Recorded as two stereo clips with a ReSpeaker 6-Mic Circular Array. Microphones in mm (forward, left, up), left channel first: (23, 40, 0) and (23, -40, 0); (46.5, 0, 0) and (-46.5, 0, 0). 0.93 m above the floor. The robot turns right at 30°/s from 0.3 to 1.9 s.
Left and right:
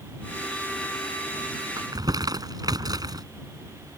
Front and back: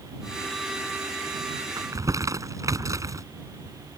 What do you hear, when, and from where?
1.8 s crumpling: 130° right; by 3.2 s 125° right